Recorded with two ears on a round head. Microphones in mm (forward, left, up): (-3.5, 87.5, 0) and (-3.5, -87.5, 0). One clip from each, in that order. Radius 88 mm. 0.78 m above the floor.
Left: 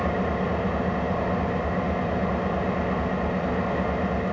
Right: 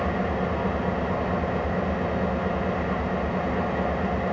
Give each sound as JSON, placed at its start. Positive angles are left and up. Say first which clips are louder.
{"t": 0.0, "sound": "an engine running", "louder": "even", "side_deg": 0, "distance_m": 1.0}